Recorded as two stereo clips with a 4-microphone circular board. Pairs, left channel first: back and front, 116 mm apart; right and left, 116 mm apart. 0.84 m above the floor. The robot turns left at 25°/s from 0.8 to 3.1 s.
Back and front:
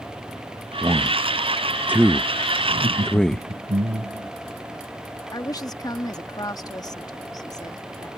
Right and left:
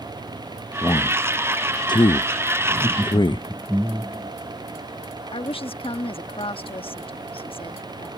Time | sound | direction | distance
0.8 | a man speaking | 45° right | ?
2.7 | laughter | 20° left | ?
5.3 | a woman speaking | 125° right | ?